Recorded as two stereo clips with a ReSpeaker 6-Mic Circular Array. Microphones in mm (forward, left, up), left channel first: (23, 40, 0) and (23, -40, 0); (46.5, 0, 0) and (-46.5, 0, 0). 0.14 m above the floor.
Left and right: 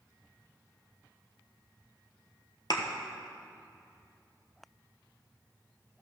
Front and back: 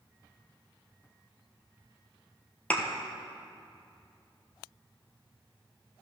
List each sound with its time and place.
2.7 s a thud: 70° left, 1.1 m